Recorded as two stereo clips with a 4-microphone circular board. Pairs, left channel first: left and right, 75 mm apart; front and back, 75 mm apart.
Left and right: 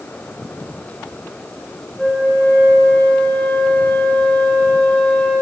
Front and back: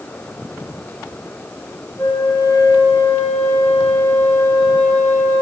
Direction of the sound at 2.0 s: 25° left.